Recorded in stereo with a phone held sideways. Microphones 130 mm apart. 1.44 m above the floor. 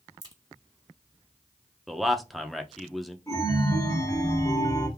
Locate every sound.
0.2 s a crack: 30° right (ahead or behind), 1.4 m
1.9 s a man speaking: centre (ahead or behind), 0.7 m
3.3 s a chime: 25° left (ahead or behind), 1.9 m